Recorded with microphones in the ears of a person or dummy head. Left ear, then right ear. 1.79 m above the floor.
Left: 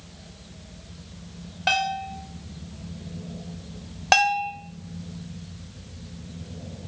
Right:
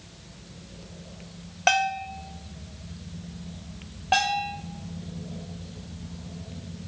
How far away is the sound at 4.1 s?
About 0.6 m.